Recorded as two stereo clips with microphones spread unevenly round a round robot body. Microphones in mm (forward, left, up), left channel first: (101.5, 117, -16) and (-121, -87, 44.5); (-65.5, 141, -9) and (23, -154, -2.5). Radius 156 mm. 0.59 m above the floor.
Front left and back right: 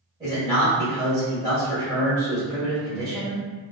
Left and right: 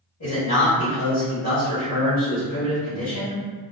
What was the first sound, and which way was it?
A man speaking, 145° left.